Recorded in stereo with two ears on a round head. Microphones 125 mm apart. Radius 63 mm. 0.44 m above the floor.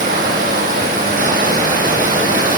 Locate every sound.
0.0 s running water: 70° right (ahead or behind), 9.5 m